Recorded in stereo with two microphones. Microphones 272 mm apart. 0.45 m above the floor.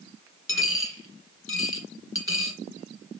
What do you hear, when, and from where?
0.5 s a dropped coin: 50° left (ahead or behind), 1.8 m